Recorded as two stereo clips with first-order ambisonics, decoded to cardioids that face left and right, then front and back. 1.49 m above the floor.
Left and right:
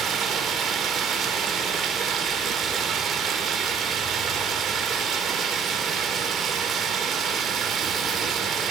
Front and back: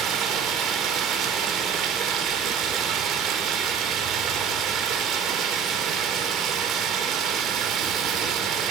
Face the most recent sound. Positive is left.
turn(degrees=-145)